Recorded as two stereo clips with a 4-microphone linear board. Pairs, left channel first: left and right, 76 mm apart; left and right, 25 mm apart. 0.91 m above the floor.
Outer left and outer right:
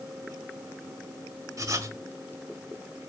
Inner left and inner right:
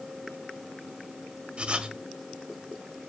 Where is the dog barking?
No dog barking in this recording.